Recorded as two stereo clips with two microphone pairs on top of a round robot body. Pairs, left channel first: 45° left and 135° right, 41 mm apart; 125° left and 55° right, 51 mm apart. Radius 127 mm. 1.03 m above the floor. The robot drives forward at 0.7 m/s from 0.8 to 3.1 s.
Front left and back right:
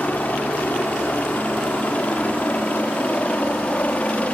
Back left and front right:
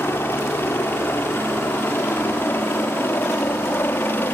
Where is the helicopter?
90° left; by 4.3 s 95° left.